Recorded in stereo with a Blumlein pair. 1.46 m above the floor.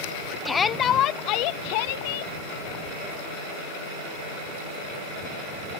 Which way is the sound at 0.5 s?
15° left.